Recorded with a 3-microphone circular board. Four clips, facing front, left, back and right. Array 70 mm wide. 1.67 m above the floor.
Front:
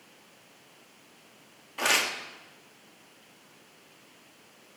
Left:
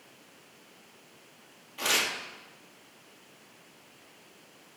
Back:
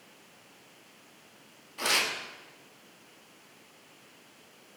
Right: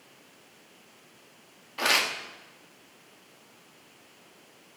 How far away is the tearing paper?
About 1.7 m.